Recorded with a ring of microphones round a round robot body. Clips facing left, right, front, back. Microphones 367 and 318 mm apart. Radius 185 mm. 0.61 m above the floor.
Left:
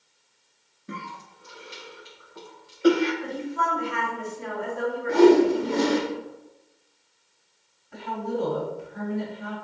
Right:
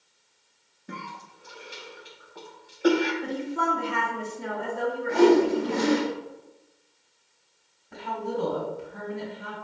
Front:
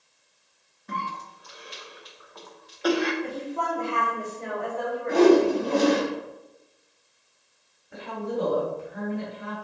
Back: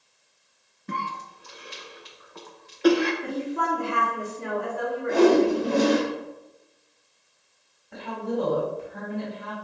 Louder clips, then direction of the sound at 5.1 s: Left 3 dB, front 1 dB; 90° left.